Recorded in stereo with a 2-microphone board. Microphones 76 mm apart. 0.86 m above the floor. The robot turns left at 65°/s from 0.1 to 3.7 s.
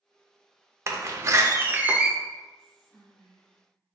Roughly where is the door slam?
Right.